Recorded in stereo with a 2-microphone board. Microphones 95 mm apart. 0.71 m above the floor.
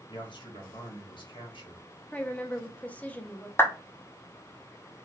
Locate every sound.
0.1 s a man speaking: 60° left (ahead or behind), 1.4 m
2.1 s a woman speaking: 15° left (ahead or behind), 0.5 m
3.6 s a clap: 25° left (ahead or behind), 0.7 m